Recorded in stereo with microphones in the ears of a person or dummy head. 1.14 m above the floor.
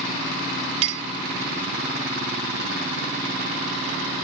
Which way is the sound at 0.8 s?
35° right (ahead or behind).